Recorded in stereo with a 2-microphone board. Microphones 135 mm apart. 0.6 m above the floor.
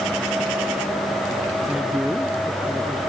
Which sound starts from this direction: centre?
A man speaking, at 1.6 s.